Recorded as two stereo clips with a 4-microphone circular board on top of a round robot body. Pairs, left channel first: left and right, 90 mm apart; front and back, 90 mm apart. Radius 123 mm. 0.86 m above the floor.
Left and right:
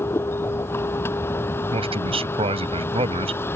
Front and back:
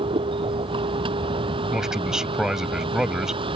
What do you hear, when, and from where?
0.0 s a vehicle: 155° left
1.7 s a man speaking: 95° right